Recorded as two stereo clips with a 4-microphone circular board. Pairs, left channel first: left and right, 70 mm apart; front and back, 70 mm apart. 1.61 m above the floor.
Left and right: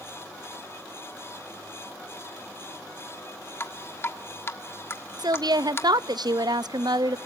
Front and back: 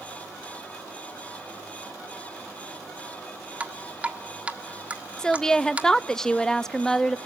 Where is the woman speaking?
80° right, 0.6 m.